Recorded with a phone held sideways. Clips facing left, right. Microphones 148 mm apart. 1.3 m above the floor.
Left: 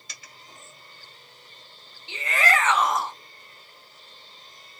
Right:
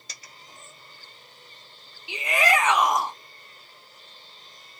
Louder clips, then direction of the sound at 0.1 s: Even; 35° right (ahead or behind).